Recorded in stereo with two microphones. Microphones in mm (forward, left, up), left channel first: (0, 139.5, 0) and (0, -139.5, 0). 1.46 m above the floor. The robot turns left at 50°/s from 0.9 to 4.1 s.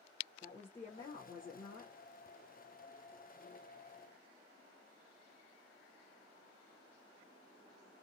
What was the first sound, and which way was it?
A woman speaking, 155° left.